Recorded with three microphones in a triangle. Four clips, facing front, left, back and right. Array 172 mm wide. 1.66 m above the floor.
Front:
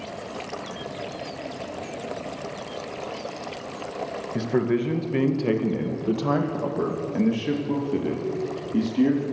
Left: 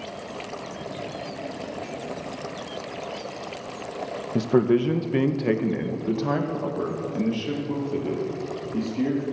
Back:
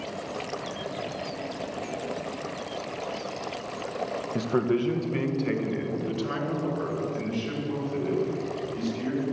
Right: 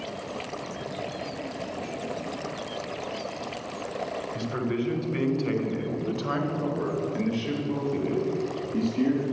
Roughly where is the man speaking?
Left.